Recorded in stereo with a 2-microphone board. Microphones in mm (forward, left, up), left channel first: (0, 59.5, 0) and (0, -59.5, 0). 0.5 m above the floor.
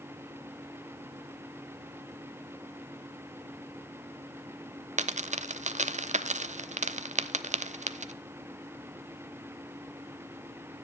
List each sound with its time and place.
5.0 s a dropped coin: 80° right, 0.5 m